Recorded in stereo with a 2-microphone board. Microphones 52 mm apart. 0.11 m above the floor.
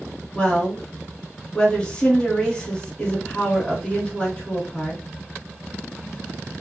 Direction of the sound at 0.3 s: 20° left (ahead or behind).